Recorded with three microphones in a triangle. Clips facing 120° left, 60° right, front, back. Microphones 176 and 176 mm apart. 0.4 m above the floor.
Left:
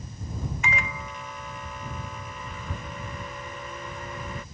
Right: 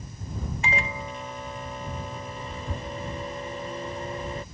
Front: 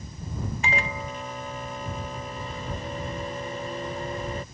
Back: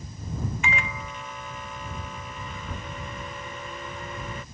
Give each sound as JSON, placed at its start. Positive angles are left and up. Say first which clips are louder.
{"t": 0.6, "sound": "a microwave", "louder": "right 5 dB, front 2 dB", "azimuth_deg": -25}